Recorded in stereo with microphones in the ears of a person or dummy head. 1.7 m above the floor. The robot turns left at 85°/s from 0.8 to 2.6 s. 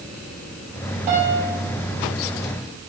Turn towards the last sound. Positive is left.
turn(degrees=100)